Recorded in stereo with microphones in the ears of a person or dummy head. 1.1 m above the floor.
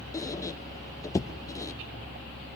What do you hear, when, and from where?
0.1 s a squeak: 20° left (ahead or behind), 0.6 m